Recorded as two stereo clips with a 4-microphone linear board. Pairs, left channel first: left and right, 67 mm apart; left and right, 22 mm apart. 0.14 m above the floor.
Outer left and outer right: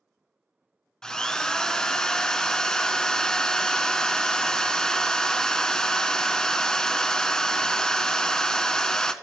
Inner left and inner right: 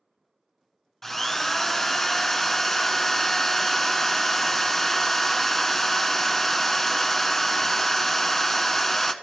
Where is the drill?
10° left (ahead or behind), 0.5 m.